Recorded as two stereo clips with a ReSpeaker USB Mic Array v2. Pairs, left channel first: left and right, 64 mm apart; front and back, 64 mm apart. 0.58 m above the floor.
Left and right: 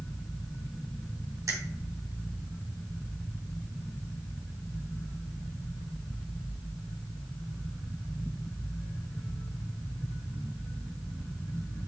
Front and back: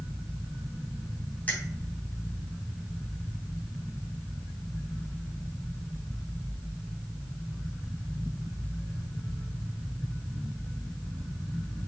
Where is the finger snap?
70° right, 2.5 m.